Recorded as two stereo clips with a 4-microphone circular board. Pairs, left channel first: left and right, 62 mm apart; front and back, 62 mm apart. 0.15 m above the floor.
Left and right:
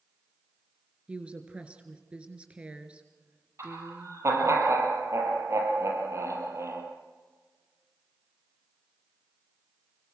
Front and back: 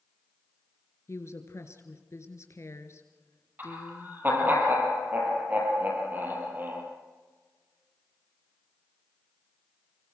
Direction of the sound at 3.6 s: 125° right.